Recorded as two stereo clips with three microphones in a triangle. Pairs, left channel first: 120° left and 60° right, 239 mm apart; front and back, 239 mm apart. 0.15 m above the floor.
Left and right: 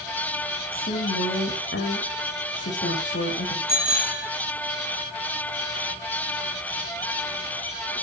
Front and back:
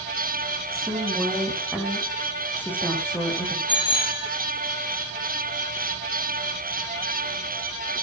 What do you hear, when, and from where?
0.7 s a woman speaking: 90° left, 8 m; by 3.6 s 75° left, 7 m
3.7 s a bicycle bell: 70° left, 5 m